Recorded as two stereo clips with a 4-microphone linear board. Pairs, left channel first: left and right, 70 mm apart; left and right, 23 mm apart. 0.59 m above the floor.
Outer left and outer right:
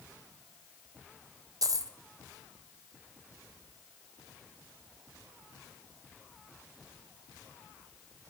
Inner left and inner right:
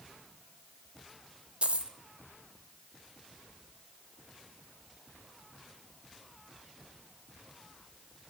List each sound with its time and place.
1.6 s a dropped coin: 55° right (ahead or behind), 0.8 m